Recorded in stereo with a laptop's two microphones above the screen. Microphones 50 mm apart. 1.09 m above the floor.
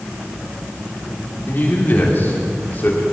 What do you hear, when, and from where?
1.5 s a man speaking: 40° left (ahead or behind), 3.5 m